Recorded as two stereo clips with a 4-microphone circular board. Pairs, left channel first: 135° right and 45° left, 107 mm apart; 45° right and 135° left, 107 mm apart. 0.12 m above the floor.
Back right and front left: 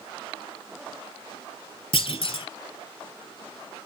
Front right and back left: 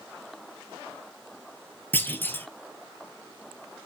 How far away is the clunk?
About 0.7 m.